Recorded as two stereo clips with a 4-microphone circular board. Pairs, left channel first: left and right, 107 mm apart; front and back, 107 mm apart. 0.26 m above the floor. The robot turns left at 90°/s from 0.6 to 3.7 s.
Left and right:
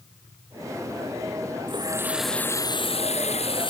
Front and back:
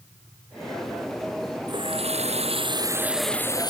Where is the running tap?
130° right; by 3.7 s 50° left.